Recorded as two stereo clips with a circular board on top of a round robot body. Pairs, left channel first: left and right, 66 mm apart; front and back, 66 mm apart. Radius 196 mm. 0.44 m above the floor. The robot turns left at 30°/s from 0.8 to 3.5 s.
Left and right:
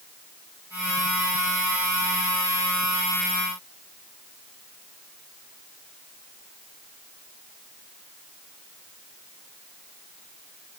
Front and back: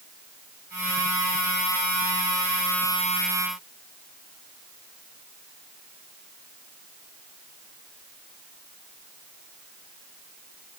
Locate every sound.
Only background noise.